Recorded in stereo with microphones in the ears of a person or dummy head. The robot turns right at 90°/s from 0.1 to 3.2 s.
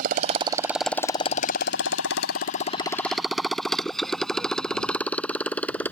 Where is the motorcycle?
50° right (ahead or behind); by 5.9 s 10° left (ahead or behind).